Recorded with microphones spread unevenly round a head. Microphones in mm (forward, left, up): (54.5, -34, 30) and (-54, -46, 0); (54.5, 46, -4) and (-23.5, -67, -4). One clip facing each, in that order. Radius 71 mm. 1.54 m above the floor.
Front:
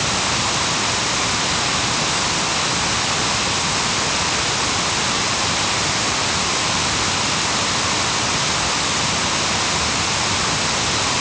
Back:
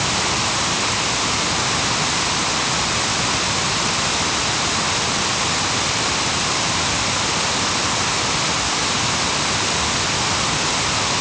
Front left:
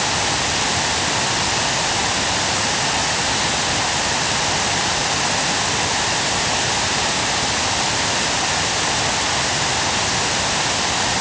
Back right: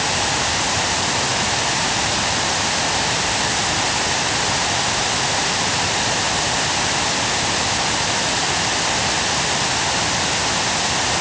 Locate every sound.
Only background noise.